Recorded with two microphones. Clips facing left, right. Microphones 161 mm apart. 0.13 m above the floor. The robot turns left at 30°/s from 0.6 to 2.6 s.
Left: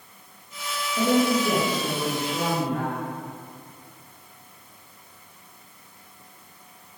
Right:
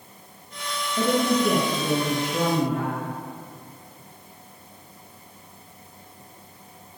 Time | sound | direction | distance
1.0 | a woman speaking | 10° left | 2.5 m